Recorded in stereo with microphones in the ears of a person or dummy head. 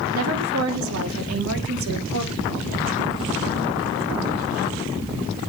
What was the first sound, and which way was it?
A woman speaking, 70° right (ahead or behind).